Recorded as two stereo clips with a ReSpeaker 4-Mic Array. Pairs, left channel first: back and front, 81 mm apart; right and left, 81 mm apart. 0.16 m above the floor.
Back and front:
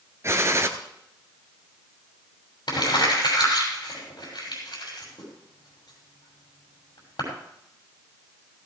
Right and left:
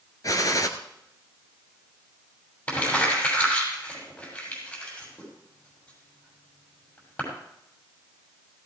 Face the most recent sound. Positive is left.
turn(degrees=-155)